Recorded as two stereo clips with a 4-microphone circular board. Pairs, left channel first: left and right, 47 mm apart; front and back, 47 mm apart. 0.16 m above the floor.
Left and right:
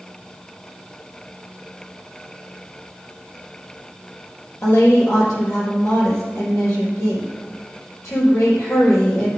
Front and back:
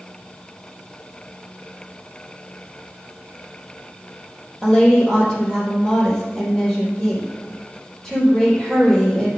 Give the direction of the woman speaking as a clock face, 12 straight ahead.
9 o'clock.